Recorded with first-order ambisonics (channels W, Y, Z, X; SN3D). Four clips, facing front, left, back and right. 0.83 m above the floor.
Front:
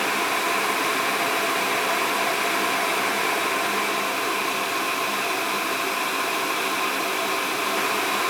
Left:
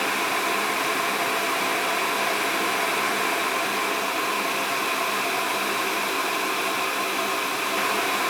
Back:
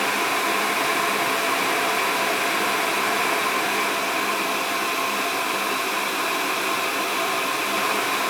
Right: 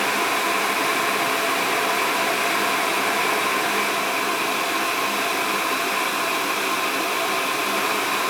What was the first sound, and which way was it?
Only background noise.